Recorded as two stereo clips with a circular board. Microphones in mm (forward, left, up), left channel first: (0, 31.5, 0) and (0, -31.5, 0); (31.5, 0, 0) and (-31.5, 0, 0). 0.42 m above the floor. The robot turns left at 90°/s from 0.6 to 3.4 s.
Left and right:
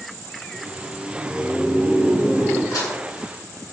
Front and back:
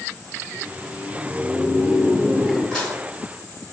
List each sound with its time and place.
0.4 s laughter: 100° left, 1.6 m; by 2.6 s 80° right, 1.6 m
2.7 s dishes clattering: 80° left, 2.0 m; by 3.0 s 55° left, 2.0 m